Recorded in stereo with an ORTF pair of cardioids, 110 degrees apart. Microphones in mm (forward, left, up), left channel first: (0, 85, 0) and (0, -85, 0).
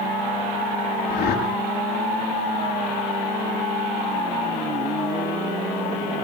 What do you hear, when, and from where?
1.1 s a whoosh: 70° left, 7.5 m